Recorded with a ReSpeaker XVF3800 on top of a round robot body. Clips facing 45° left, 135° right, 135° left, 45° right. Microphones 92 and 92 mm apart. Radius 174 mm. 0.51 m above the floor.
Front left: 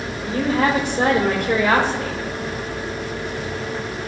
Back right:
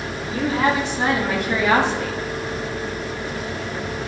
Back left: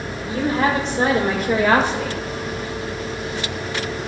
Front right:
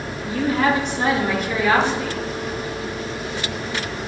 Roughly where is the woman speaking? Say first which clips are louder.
Front left 1 dB, even; left.